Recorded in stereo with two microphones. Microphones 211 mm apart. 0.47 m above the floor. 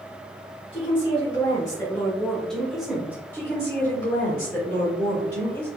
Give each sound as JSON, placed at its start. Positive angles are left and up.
{"t": 0.7, "sound": "a woman speaking", "side_deg": 35, "distance_m": 1.9}
{"t": 3.3, "sound": "a woman speaking", "side_deg": 20, "distance_m": 1.6}